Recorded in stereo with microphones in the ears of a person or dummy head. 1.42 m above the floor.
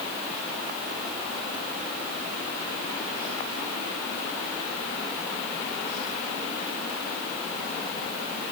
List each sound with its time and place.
Only background noise.